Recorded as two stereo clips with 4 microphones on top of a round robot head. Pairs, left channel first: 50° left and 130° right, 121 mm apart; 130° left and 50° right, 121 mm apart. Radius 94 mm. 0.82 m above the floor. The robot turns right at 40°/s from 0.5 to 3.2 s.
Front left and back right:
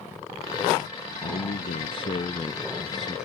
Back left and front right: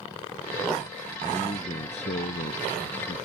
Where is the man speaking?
65° left; by 3.3 s 145° left.